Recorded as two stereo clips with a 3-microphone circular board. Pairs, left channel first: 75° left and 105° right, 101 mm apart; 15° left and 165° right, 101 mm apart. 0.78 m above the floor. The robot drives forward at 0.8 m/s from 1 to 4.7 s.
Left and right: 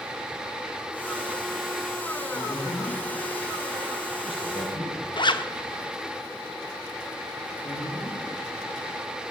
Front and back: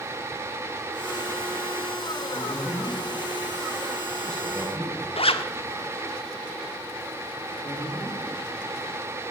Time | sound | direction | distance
2.3 | a man speaking | 75° left | 4 m
5.2 | a zipper | 35° left | 0.9 m
7.6 | a man speaking | 50° left | 9 m